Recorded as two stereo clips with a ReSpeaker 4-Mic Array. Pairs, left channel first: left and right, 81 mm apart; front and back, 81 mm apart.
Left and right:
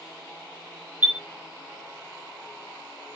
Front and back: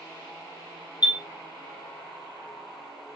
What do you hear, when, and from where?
1.0 s a chime: 20° right, 1.2 m